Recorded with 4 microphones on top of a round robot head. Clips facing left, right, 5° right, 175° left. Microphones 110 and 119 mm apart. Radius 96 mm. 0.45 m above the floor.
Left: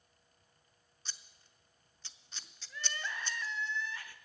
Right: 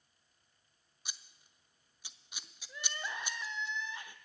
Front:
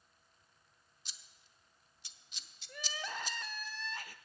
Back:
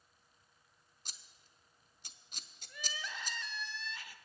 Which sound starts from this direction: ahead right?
Crying, at 2.7 s.